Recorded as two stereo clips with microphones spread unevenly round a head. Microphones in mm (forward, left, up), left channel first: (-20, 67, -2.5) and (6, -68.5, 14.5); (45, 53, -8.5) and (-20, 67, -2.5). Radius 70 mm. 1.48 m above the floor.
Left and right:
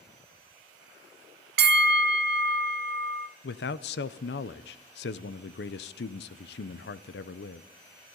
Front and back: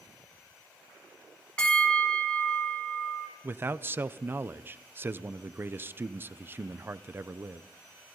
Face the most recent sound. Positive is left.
turn(degrees=110)